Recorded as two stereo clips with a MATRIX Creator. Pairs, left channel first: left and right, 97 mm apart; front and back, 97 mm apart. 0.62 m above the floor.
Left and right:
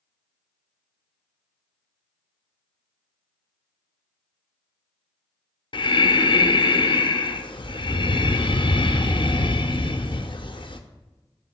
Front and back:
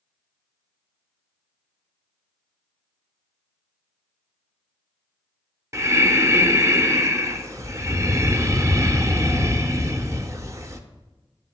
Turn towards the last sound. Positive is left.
turn(degrees=120)